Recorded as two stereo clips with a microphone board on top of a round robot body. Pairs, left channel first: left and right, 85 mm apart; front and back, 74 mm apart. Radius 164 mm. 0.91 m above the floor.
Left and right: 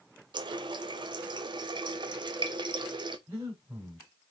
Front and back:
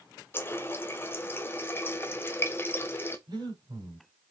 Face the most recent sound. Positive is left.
turn(degrees=-150)